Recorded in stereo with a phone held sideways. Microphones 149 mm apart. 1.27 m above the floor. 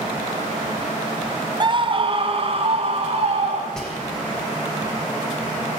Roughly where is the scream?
Right.